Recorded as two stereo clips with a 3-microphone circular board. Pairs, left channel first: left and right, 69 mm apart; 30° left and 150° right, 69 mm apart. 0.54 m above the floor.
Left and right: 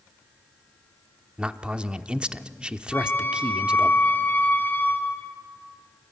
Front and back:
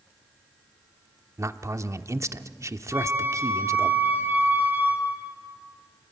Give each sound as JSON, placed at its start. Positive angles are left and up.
{"t": 1.4, "sound": "a man speaking", "azimuth_deg": -160, "distance_m": 0.9}
{"t": 2.9, "sound": "a flute", "azimuth_deg": 150, "distance_m": 2.0}